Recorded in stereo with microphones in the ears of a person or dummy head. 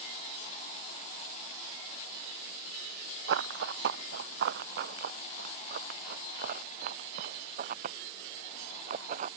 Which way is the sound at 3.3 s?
65° right (ahead or behind).